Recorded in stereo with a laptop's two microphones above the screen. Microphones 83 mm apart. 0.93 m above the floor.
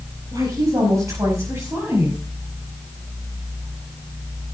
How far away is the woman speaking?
About 5 m.